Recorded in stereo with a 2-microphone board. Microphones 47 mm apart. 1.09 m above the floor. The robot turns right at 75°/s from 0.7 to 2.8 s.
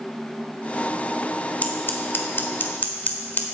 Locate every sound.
1.6 s scissors: 35° left (ahead or behind), 1.1 m